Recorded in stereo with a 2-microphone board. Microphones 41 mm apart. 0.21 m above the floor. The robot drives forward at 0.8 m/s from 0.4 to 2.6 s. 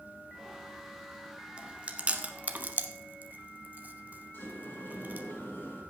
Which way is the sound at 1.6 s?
25° right (ahead or behind).